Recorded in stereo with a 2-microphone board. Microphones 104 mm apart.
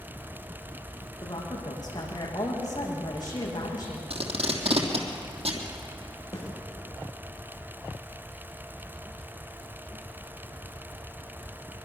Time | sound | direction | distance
1.2 | a woman speaking | 40° left (ahead or behind) | 6.5 m
4.1 | tape being pulled | 70° right (ahead or behind) | 3 m
6.3 | a snare drum | 30° left (ahead or behind) | 8 m